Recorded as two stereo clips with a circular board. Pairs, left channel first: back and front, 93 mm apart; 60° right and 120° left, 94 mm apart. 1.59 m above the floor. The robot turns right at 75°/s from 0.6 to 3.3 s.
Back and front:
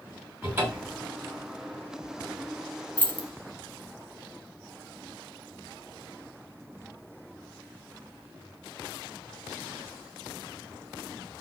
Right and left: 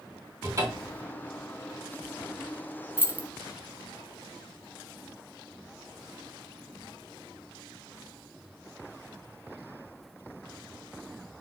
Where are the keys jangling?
135° left, 0.6 m; by 3.3 s 155° left, 0.6 m.